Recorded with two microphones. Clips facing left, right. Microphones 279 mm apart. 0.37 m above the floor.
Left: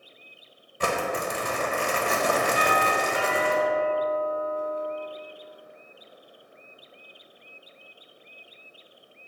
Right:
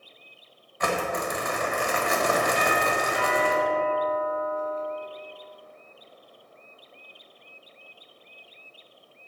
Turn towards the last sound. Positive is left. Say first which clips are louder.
# even
turn(degrees=10)  # may be behind; listen again after turning